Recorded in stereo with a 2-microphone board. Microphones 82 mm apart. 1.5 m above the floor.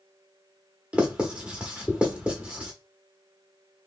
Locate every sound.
0.9 s writing: 10° right (ahead or behind), 1.2 m